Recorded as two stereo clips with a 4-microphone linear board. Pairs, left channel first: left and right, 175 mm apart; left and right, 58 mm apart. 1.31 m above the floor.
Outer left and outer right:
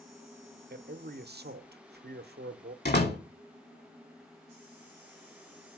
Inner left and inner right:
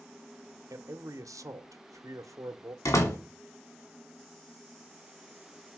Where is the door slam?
65° left (ahead or behind), 2.5 m.